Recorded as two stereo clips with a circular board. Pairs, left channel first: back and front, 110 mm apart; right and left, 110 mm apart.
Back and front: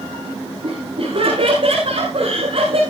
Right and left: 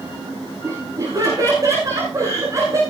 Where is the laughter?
35° left, 9.5 m; by 2.8 s 30° left, 8.5 m.